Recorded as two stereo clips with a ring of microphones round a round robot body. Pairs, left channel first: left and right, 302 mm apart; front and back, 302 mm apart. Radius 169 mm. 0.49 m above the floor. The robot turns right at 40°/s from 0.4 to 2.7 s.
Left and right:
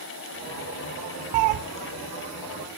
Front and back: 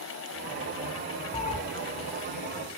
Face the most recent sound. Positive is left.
turn(degrees=-20)